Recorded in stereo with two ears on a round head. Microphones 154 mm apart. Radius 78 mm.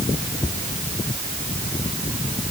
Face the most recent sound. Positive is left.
No sound to turn to.